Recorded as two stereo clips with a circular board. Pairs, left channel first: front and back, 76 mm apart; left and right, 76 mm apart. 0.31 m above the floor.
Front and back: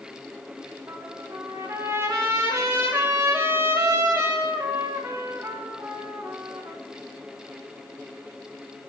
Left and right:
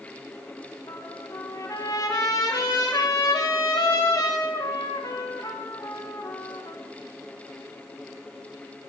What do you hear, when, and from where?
0.9 s a trumpet: 125° left, 6 m